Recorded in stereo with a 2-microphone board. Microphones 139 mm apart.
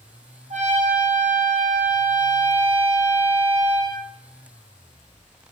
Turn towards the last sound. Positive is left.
turn(degrees=-65)  # may be behind; listen again after turning